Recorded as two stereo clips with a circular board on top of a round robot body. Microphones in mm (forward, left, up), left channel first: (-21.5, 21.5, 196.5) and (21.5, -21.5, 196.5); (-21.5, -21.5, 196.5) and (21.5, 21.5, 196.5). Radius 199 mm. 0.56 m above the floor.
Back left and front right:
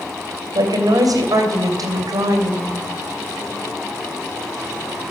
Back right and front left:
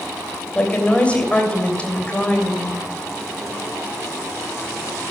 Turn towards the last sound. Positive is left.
turn(degrees=-60)